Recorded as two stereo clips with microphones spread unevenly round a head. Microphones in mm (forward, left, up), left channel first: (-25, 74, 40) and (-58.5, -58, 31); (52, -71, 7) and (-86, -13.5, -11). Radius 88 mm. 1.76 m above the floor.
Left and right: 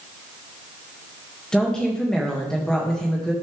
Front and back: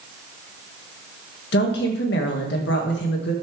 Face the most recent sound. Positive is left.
turn(degrees=-10)